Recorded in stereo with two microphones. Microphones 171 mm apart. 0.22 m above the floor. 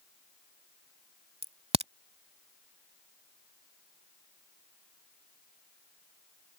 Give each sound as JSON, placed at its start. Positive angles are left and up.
{"t": 1.4, "sound": "a crack", "side_deg": -35}